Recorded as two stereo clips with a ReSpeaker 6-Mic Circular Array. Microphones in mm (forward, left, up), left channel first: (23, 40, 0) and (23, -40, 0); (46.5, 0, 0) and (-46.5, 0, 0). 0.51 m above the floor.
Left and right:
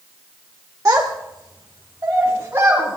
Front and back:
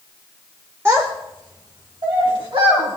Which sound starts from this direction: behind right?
A child speaking, at 0.8 s.